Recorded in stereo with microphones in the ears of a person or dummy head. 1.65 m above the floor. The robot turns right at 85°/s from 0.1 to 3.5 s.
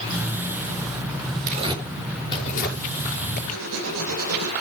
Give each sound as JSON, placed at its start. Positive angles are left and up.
{"t": 1.5, "sound": "tearing paper", "side_deg": -45, "distance_m": 5.5}
{"t": 3.5, "sound": "writing", "side_deg": -75, "distance_m": 4.0}